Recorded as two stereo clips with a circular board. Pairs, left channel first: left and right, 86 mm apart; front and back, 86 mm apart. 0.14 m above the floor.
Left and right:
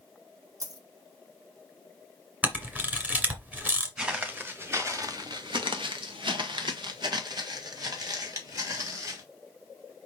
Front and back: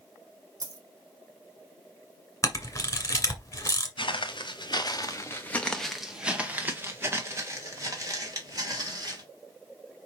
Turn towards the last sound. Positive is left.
turn(degrees=-135)